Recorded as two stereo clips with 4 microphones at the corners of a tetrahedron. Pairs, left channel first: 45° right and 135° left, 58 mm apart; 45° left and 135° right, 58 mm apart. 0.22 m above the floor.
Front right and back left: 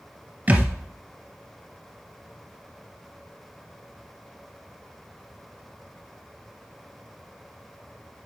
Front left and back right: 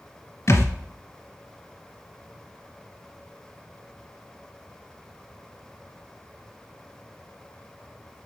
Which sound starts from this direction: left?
A thud, at 0.5 s.